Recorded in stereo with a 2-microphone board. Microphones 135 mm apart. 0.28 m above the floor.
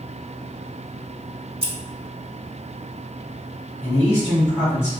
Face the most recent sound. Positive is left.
turn(degrees=15)  # may be behind; listen again after turning